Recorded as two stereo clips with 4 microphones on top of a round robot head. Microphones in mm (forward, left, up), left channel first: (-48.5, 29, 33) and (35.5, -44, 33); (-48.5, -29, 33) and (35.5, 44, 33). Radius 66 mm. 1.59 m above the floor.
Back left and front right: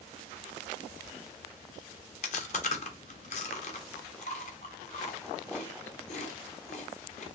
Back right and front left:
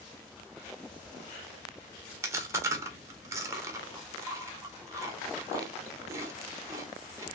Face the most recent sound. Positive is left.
turn(degrees=105)